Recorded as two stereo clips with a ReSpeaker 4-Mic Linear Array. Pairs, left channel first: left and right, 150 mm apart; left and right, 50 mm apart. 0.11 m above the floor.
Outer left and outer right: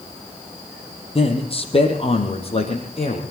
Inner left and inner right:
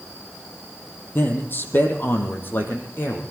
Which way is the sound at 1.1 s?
40° left (ahead or behind).